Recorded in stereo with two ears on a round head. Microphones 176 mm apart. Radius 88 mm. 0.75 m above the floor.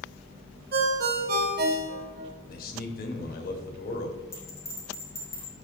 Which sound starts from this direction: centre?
A bell, at 4.3 s.